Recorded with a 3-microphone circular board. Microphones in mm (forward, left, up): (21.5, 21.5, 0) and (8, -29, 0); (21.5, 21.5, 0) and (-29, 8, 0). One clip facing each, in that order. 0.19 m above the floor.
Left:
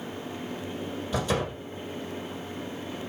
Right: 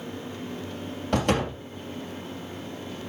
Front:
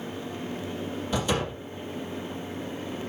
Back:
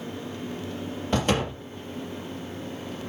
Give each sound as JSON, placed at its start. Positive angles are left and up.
{"t": 1.1, "sound": "a door slam", "azimuth_deg": -130, "distance_m": 4.0}